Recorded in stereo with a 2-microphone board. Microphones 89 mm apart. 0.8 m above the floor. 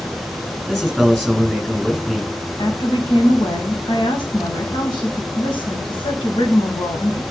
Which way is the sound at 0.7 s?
5° left (ahead or behind).